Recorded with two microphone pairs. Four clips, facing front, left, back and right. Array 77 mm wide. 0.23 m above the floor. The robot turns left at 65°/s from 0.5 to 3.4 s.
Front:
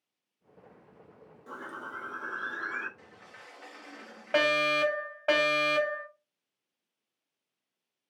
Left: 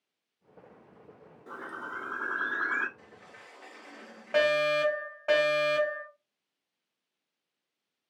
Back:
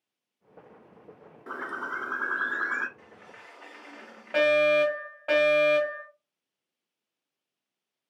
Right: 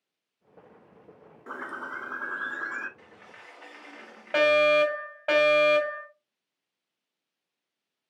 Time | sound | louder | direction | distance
1.5 | a bird | right 3 dB, back 7 dB | 140° right | 0.7 m
3.0 | a sliding door | right 2 dB, back 2 dB | 105° right | 1.7 m
4.3 | a fire alarm | right 5 dB, back 5 dB | 55° right | 2.5 m